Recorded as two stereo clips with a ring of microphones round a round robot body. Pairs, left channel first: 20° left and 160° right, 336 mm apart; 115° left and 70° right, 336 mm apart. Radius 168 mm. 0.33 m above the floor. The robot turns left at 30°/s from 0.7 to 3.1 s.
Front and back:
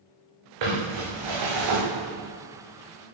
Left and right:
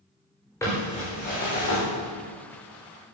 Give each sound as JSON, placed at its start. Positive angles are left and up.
{"t": 0.6, "sound": "crumpling", "azimuth_deg": -165, "distance_m": 7.0}